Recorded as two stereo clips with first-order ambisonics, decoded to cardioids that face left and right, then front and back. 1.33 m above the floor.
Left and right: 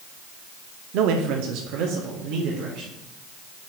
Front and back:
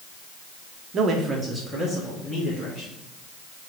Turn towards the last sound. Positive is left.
turn(degrees=-75)